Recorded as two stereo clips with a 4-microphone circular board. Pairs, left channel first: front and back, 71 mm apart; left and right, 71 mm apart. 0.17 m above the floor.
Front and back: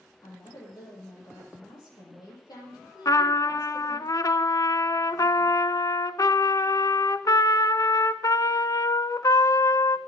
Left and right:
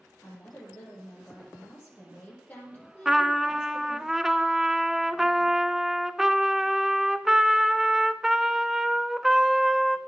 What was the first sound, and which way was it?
A woman speaking, 25° left.